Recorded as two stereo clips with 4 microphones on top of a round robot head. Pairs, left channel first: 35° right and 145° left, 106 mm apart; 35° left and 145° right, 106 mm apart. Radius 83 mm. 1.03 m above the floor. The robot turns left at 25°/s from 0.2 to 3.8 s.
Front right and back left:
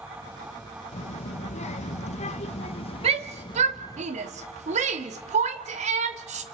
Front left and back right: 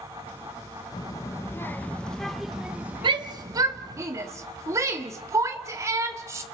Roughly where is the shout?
Behind.